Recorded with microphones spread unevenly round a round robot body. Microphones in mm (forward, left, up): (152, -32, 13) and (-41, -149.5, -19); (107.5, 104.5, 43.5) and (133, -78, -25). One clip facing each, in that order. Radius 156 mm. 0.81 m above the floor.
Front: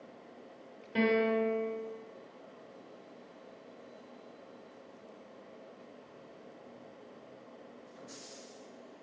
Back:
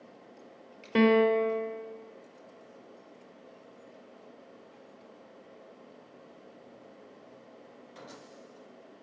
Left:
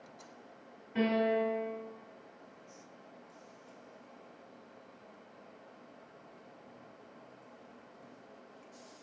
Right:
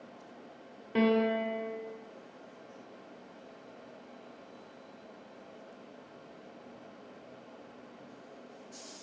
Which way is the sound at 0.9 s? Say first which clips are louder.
Back 6 dB, right 3 dB; 120° right.